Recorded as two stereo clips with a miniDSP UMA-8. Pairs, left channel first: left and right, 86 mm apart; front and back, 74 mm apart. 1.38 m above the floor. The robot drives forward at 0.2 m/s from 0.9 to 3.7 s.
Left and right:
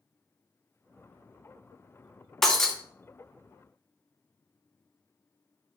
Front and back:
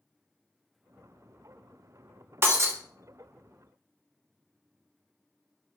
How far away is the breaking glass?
About 0.6 m.